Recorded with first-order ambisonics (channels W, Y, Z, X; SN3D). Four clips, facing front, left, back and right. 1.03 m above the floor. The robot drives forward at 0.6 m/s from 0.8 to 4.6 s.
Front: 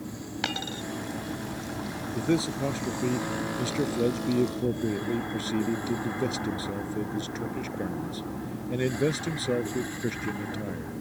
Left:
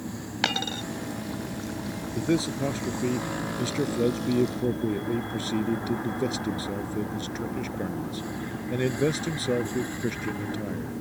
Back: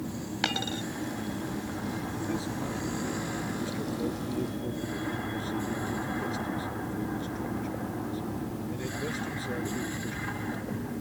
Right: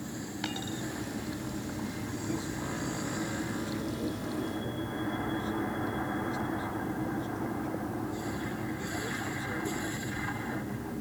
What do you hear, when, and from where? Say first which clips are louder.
0.4 s a dropped coin: left 10 dB, back 1 dB; 95° left; by 0.8 s 100° left
2.1 s a man speaking: left 12 dB, front 10 dB; 50° left; by 10.9 s 55° left